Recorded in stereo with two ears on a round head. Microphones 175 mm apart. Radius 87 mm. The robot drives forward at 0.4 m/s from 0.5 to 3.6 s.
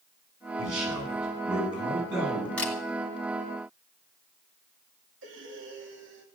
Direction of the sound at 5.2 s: 70° right (ahead or behind).